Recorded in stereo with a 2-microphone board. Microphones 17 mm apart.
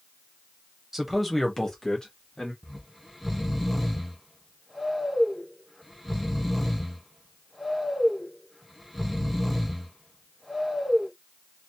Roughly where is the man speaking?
Centre.